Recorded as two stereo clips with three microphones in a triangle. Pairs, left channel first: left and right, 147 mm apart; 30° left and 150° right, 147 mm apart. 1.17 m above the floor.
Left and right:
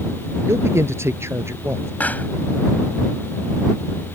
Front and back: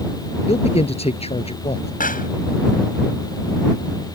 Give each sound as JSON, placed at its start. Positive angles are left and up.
{"t": 0.5, "sound": "a man speaking", "azimuth_deg": -15}
{"t": 2.0, "sound": "a pop", "azimuth_deg": 10}